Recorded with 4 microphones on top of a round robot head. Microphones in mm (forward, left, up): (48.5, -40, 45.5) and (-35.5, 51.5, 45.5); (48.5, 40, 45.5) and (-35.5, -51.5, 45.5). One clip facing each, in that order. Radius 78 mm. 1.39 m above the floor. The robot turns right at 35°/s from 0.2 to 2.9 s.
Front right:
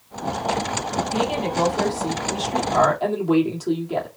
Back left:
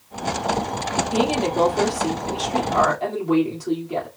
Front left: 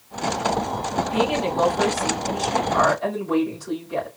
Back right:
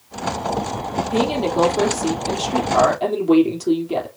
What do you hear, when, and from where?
1.1 s a woman speaking: 175° left, 3 m; by 4.1 s 125° right, 3 m